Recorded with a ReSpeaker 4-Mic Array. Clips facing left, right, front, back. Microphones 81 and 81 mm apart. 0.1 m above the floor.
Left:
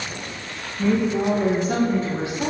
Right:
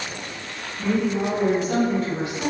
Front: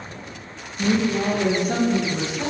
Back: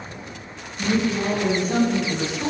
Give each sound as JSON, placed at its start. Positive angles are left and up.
{"t": 0.8, "sound": "a woman speaking", "azimuth_deg": 10, "distance_m": 2.5}